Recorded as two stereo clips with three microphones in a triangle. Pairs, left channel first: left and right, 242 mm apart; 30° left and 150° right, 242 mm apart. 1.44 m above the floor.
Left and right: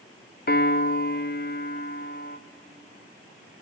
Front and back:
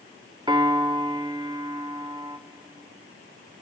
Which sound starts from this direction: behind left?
A piano, at 0.5 s.